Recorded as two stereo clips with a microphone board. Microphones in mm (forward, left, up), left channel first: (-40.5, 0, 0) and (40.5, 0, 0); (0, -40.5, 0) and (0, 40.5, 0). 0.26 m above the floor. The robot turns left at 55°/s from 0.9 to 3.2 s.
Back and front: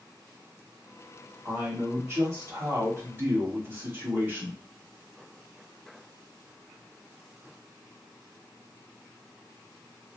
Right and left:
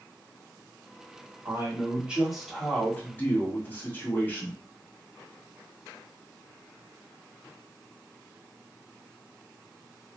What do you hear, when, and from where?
1.4 s a man speaking: 55° left, 1.5 m; by 4.6 s 40° right, 1.5 m